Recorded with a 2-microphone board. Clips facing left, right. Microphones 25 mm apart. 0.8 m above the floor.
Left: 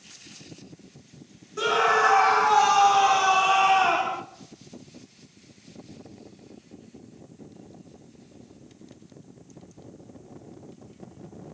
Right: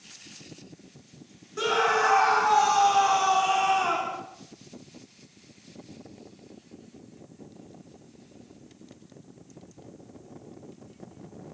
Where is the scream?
10° right (ahead or behind), 3 m; by 4.2 s 20° left (ahead or behind), 2 m.